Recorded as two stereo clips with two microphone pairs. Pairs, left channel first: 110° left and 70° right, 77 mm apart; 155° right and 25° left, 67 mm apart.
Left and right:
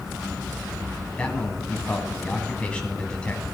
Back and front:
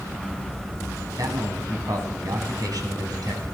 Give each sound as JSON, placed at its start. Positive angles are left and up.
{"t": 1.2, "sound": "a man speaking", "azimuth_deg": 35, "distance_m": 2.5}